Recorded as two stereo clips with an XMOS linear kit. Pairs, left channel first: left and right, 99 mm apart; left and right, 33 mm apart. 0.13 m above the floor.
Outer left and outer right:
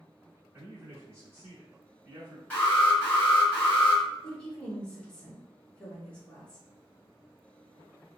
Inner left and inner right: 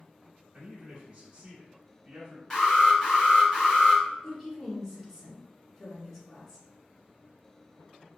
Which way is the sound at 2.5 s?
15° left (ahead or behind).